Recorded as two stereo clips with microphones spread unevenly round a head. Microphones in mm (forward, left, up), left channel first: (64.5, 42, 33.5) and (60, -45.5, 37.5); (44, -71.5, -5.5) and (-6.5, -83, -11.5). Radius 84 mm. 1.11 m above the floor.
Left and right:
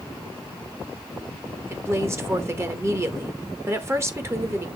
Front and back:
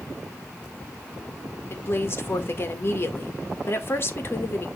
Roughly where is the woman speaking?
Ahead right.